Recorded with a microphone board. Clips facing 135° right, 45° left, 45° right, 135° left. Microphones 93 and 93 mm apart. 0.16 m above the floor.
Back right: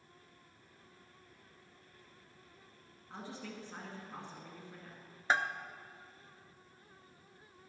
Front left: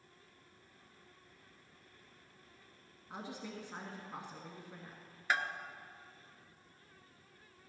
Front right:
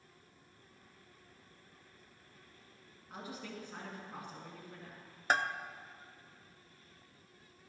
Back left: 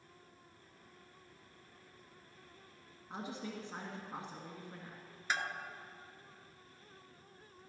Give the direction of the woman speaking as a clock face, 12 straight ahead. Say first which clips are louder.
Front left 1 dB, back left 2 dB; 8 o'clock.